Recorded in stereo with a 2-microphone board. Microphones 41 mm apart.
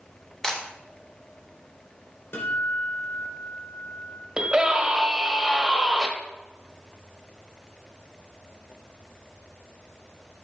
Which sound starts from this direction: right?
A scream, at 4.4 s.